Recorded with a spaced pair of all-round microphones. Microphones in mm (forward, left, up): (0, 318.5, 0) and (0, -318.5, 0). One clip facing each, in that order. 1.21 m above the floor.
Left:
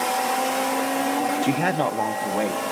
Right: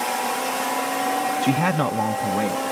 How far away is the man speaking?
About 0.9 m.